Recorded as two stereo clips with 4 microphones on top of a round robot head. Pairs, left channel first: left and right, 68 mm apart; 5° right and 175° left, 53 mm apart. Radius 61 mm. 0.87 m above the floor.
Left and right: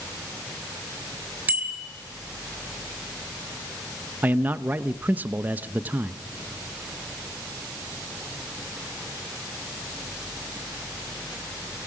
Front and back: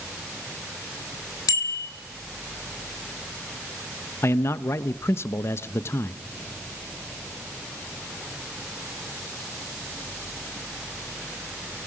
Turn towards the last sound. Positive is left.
turn(degrees=-30)